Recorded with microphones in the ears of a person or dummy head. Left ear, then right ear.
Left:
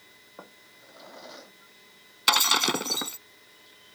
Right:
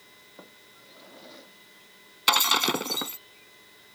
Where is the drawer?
35° left (ahead or behind).